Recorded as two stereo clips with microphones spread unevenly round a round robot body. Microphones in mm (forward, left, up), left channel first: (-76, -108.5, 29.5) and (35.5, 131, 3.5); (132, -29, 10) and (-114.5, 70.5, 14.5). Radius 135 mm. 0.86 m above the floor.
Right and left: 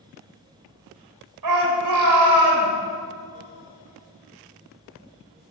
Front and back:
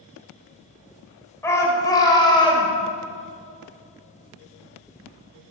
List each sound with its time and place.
1.4 s a shout: 60° left, 4 m; by 2.7 s 50° left, 4 m